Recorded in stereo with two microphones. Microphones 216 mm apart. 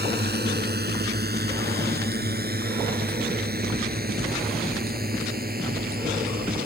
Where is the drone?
50° right (ahead or behind); by 6.7 s 45° right (ahead or behind).